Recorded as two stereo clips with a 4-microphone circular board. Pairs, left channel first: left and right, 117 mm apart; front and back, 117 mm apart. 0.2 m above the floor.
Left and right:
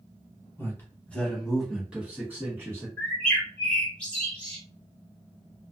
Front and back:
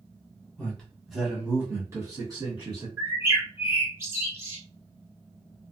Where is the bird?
155° left, 1.7 m.